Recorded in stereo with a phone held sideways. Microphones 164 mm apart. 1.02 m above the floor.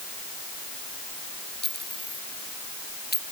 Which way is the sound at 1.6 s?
80° left.